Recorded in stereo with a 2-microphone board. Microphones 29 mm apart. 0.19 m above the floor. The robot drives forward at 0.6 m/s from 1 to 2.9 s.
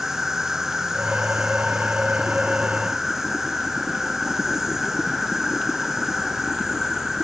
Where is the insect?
15° right (ahead or behind); by 7.2 s 10° right (ahead or behind).